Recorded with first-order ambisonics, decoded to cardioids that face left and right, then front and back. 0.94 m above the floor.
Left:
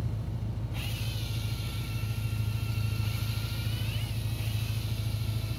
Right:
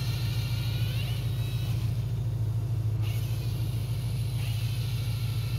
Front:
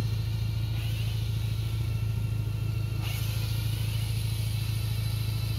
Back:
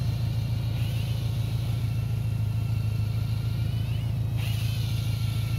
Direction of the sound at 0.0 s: 170° left.